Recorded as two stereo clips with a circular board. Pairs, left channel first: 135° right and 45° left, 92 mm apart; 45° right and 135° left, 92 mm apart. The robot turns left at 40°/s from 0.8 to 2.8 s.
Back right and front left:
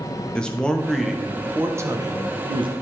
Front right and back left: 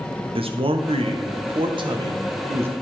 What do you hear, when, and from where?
0.3 s a man speaking: 145° left, 0.9 m; by 2.7 s 70° left, 0.9 m